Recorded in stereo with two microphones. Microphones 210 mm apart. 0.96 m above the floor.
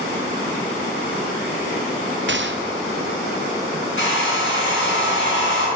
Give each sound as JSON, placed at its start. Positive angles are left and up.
{"t": 2.3, "sound": "a gunshot", "side_deg": -60, "distance_m": 0.6}
{"t": 4.0, "sound": "a hair dryer", "side_deg": 70, "distance_m": 4.5}